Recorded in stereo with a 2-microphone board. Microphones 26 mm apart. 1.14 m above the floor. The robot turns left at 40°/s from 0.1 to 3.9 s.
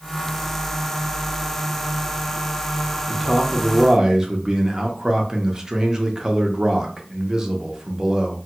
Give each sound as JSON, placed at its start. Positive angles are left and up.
{"t": 3.1, "sound": "a man speaking", "azimuth_deg": 5, "distance_m": 0.6}